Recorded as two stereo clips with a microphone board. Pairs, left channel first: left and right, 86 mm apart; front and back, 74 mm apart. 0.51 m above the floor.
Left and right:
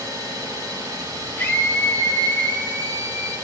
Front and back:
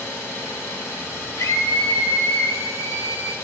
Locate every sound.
0.0 s an engine running: 45° right, 4 m
1.4 s a scream: 25° left, 2 m